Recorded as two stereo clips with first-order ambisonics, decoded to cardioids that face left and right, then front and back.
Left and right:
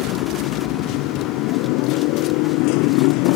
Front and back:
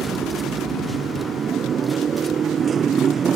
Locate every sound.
0.0 s a motorcycle: 115° left